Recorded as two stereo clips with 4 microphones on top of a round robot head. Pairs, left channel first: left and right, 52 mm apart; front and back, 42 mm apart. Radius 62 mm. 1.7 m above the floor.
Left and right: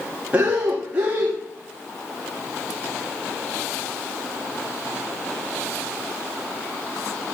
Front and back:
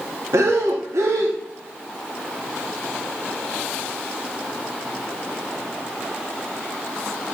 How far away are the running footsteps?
I don't hear running footsteps.